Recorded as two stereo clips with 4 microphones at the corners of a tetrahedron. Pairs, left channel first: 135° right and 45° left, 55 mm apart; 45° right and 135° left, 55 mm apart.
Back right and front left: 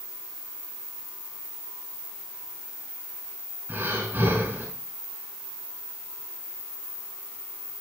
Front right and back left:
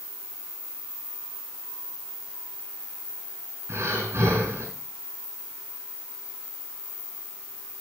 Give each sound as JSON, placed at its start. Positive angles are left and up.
{"t": 3.7, "sound": "breathing", "azimuth_deg": 95, "distance_m": 3.5}